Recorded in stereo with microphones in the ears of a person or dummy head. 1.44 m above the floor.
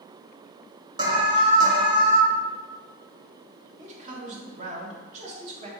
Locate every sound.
1.0 s an alarm: 25° right (ahead or behind), 0.8 m
3.8 s a man speaking: 40° right (ahead or behind), 1.3 m